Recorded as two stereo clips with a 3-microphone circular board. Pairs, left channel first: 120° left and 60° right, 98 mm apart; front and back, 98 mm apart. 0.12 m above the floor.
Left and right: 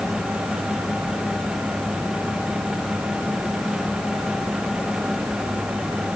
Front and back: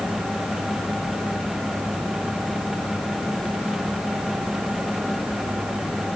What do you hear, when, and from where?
Only background noise.